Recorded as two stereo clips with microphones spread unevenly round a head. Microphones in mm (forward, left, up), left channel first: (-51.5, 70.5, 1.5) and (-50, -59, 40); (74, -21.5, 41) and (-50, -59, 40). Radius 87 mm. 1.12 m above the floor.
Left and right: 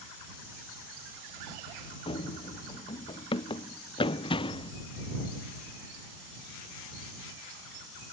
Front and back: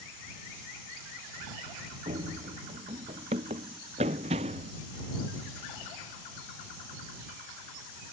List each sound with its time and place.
2.1 s running footsteps: 140° left; by 4.7 s 145° left